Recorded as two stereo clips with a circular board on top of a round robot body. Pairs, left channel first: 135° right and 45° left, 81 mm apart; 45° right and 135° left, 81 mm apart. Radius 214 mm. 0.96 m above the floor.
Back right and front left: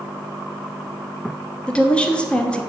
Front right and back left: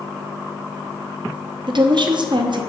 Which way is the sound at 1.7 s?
150° left.